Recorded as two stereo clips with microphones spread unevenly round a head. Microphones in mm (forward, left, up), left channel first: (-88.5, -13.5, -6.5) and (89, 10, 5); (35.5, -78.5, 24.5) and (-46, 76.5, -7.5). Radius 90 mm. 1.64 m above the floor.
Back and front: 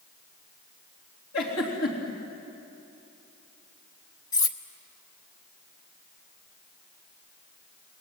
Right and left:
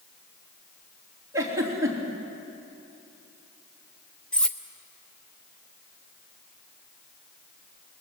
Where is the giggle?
170° right, 3.5 m.